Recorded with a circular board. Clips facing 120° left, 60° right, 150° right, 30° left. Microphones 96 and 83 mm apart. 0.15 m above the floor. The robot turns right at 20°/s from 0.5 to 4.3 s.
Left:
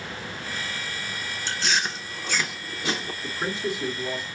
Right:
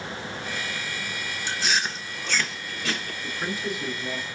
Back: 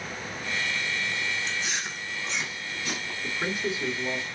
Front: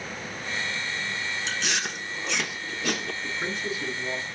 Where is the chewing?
20° left, 0.7 m; by 3.1 s 55° left, 0.7 m.